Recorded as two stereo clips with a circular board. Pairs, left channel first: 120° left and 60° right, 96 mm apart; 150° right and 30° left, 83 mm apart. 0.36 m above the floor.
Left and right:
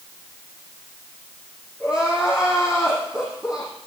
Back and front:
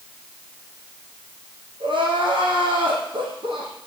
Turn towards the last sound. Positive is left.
turn(degrees=25)